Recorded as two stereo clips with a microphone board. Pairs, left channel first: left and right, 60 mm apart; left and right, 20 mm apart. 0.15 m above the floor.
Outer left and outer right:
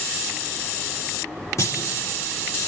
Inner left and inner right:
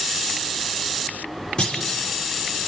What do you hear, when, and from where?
1.6 s a clunk: 55° left (ahead or behind), 5 m